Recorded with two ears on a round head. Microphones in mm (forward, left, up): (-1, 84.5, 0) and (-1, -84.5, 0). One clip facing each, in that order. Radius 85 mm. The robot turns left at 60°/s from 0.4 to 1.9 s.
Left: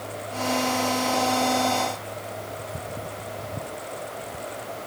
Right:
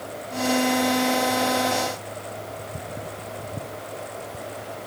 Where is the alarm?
I don't hear an alarm.